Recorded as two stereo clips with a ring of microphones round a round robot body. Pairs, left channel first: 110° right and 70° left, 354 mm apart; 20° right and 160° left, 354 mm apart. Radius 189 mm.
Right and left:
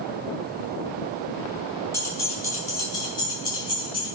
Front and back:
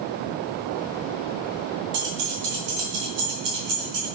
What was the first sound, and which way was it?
Keys jangling, 165° left.